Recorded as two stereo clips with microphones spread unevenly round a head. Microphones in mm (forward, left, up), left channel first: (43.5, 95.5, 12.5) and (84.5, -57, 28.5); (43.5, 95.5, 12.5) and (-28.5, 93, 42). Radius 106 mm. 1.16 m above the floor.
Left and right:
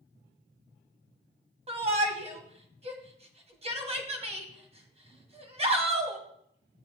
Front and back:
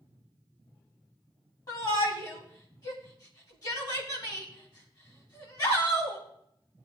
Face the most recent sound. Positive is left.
turn(degrees=-25)